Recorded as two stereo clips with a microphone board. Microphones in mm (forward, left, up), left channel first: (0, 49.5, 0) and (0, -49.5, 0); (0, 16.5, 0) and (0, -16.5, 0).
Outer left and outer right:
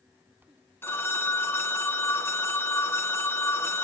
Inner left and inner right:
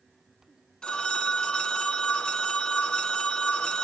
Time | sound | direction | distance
0.8 | a phone ringing | 25° left (ahead or behind) | 0.8 m